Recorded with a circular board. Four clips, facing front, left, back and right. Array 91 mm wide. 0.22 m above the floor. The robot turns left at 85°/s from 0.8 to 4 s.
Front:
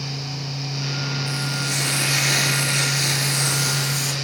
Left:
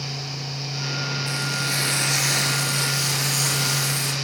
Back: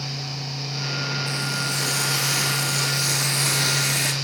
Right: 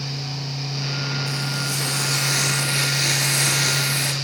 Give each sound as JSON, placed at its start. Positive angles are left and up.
{"t": 1.3, "sound": "frying", "azimuth_deg": 90, "distance_m": 4.0}